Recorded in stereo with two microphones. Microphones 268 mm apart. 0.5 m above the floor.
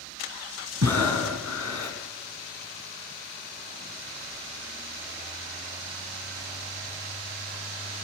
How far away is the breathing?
About 3 m.